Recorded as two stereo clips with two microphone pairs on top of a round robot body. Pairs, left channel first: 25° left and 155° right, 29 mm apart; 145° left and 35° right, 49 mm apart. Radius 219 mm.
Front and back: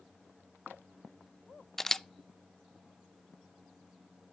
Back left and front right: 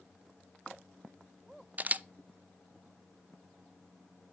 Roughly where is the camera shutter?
Ahead right.